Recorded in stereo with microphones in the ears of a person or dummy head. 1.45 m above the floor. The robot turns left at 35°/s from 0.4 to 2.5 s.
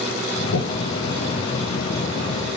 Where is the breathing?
80° left, 0.7 m; by 0.8 s 85° left, 0.7 m.